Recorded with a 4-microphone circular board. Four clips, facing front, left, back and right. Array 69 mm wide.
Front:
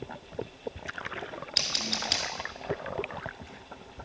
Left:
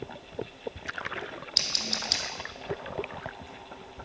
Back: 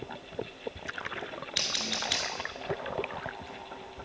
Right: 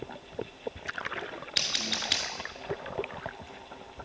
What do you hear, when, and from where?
1.6 s scissors: 100° right, 0.8 m